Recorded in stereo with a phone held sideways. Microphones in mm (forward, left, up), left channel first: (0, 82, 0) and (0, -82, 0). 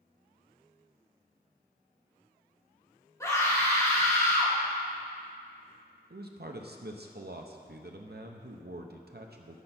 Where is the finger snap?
I don't hear a finger snap.